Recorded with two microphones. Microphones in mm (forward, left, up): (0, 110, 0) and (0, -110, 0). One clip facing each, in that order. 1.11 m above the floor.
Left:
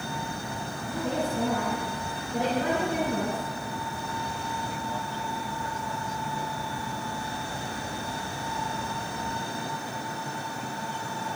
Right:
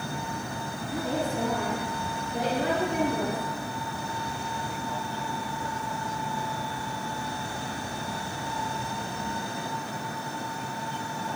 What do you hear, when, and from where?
0.9 s a woman speaking: 85° left, 7 m